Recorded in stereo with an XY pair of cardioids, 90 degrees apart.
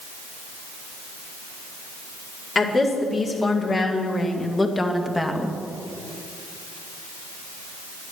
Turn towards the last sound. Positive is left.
turn(degrees=0)